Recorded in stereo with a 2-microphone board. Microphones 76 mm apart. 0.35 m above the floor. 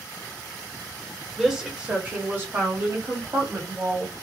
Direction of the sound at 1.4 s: Centre (ahead or behind).